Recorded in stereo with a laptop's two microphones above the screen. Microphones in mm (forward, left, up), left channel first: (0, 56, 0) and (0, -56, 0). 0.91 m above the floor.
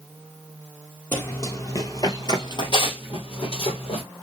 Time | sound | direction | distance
1.1 | running footsteps | 20° left (ahead or behind) | 1.6 m